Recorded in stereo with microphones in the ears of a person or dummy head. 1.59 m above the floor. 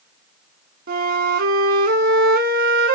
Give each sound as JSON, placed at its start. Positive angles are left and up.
{"t": 0.9, "sound": "a flute", "side_deg": -45, "distance_m": 0.8}